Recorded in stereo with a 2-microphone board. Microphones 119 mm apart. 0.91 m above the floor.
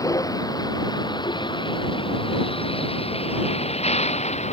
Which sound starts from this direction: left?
A vehicle, at 0.0 s.